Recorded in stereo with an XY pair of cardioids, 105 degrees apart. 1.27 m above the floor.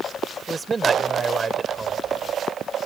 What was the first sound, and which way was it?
A man speaking, 25° right.